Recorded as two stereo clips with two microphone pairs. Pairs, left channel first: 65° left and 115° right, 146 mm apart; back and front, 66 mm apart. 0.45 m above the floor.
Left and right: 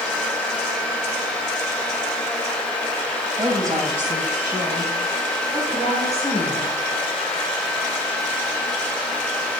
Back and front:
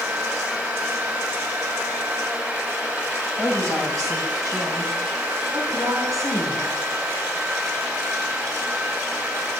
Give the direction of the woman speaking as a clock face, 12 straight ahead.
1 o'clock.